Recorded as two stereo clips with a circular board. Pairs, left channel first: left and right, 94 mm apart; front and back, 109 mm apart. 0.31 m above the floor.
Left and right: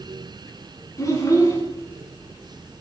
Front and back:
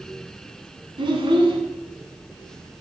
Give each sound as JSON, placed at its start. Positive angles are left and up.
{"t": 1.0, "sound": "a child speaking", "azimuth_deg": 145, "distance_m": 1.4}